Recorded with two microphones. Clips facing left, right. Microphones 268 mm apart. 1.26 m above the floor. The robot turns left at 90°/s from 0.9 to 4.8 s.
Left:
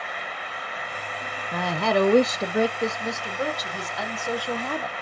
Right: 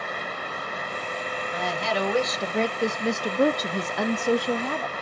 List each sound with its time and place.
1.5 s a woman speaking: 105° left, 0.6 m; by 4.9 s 170° left, 0.6 m